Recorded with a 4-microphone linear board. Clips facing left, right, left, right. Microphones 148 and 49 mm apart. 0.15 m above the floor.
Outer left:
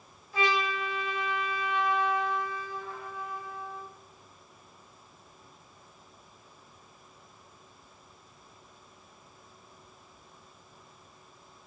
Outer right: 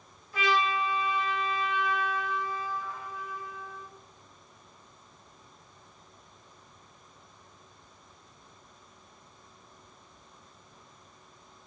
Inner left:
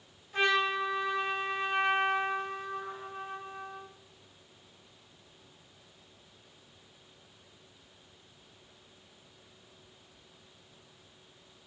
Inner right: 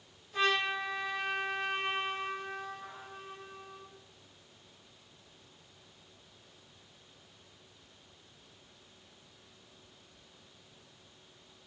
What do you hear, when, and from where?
0.3 s a trumpet: 20° left (ahead or behind), 1.6 m